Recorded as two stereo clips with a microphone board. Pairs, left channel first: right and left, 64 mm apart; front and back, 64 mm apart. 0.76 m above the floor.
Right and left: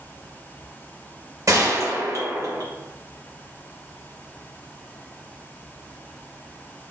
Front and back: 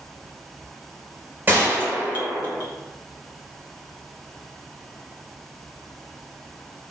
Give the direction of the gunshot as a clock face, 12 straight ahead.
8 o'clock.